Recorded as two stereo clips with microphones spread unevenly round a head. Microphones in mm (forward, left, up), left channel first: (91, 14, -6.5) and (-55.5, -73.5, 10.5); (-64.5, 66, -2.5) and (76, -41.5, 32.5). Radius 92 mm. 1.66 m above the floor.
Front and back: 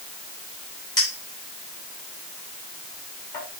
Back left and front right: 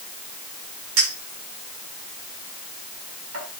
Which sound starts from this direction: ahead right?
A clink, at 1.0 s.